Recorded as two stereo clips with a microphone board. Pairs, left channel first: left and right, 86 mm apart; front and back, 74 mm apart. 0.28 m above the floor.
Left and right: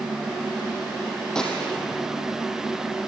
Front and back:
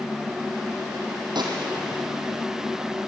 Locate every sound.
1.4 s a gunshot: 175° left, 4 m